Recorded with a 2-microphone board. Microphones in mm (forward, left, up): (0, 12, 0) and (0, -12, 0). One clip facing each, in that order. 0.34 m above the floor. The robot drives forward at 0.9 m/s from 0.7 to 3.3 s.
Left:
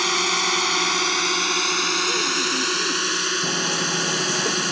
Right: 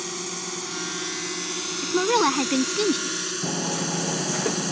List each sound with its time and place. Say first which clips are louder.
0.0 s a drone: left 12 dB; 55° left (ahead or behind); by 4.7 s 35° left (ahead or behind)
1.8 s a woman speaking: even; 60° right (ahead or behind); by 3.3 s 70° right (ahead or behind)
3.4 s hammering: left 5 dB; centre (ahead or behind)